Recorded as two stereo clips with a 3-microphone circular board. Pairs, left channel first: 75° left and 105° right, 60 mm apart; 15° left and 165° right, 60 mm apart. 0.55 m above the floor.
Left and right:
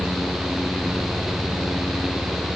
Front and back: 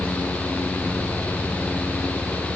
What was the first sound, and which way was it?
Only background noise.